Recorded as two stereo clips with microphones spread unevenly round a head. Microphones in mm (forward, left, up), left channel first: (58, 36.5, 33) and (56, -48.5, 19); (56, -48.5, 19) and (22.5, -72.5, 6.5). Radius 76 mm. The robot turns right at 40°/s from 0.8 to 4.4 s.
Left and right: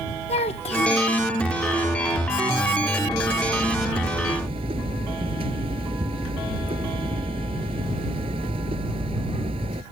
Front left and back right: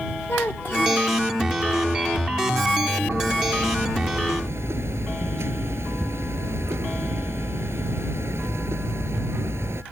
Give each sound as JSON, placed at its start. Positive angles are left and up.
{"t": 0.3, "sound": "a child speaking", "azimuth_deg": 110}
{"t": 3.1, "sound": "hammering", "azimuth_deg": 175}